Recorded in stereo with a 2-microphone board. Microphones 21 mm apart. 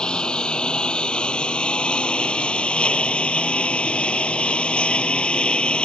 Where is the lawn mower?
50° left (ahead or behind); by 5.8 s 65° left (ahead or behind).